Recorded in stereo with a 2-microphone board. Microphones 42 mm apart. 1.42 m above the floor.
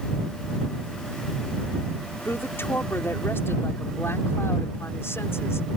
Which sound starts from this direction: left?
A woman speaking, at 2.2 s.